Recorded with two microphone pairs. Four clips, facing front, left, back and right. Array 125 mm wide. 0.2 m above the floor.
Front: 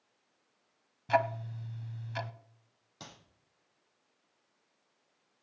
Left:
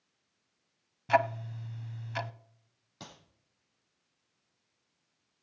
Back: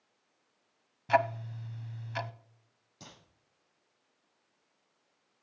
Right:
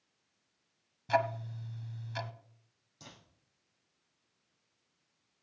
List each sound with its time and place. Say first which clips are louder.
1.1 s ticking: left 3 dB, back 2 dB; 130° left, 0.7 m
3.0 s a clap: left 5 dB, front 2 dB; 50° left, 7.5 m